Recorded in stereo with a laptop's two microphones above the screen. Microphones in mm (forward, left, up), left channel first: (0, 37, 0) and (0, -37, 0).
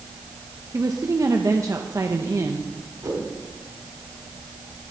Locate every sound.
0.7 s a woman speaking: 45° right (ahead or behind), 0.9 m
3.0 s a whoosh: 50° right (ahead or behind), 4 m